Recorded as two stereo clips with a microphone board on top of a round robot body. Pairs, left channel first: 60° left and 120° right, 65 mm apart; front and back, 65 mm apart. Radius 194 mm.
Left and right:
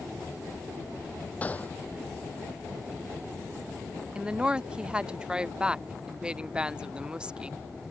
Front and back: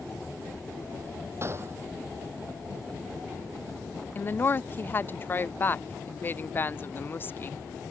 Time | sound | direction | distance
1.4 | a gunshot | 130° left | ?
4.2 | a woman speaking | 50° right | ?